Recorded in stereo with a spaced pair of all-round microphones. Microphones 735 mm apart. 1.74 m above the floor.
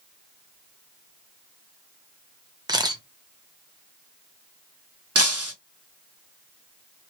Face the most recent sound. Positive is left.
turn(degrees=-20)  # may be behind; listen again after turning